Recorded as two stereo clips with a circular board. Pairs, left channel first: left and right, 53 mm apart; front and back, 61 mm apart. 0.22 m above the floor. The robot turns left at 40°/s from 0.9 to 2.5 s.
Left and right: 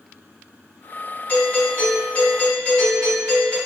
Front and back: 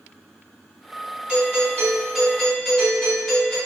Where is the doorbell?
125° left, 1.9 m; by 3.6 s 75° left, 1.9 m.